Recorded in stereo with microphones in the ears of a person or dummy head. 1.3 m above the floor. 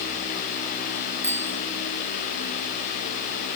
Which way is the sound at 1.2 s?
10° right (ahead or behind).